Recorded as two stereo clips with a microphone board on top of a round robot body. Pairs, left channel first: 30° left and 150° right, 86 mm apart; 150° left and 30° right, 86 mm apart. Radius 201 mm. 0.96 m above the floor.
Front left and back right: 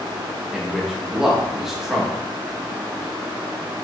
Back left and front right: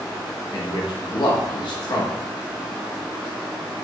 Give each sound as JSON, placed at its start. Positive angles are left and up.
{"t": 0.5, "sound": "a man speaking", "azimuth_deg": 125, "distance_m": 2.0}